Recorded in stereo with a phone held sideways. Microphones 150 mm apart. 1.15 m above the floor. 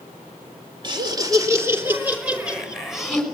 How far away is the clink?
No clink in this recording.